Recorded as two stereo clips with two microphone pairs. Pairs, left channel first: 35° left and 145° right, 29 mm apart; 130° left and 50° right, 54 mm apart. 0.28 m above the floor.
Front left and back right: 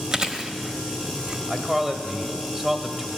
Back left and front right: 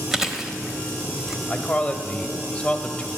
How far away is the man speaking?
About 0.9 m.